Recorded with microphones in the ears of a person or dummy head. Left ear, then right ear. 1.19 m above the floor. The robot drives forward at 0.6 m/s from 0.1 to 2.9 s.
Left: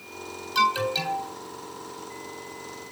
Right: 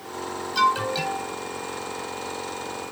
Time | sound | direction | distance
0.6 | an alarm | 15° left (ahead or behind) | 4.5 m